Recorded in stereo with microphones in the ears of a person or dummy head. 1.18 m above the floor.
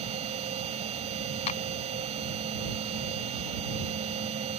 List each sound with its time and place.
0.0 s a machine running: 35° right (ahead or behind)
1.5 s a clap: 35° left (ahead or behind)